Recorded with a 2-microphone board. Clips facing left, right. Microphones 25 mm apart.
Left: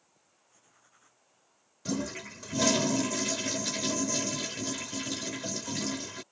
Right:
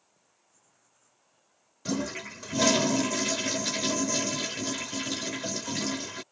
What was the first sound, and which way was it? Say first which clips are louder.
Writing: left 7 dB; 40° left (ahead or behind).